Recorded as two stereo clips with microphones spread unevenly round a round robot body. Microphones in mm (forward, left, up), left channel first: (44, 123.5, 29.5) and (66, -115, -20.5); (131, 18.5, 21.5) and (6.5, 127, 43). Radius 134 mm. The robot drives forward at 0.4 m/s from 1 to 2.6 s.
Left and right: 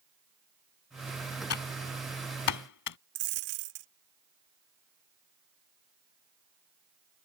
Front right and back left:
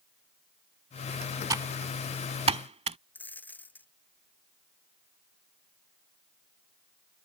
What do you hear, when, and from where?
1.5 s typing on a keyboard: 70° left; by 3.0 s 85° left
3.1 s a dropped coin: 125° right